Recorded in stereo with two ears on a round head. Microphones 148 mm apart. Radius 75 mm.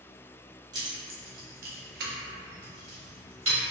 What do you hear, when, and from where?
0.7 s keys jangling: 25° right (ahead or behind), 0.7 m; by 3.6 s 35° right (ahead or behind), 1.1 m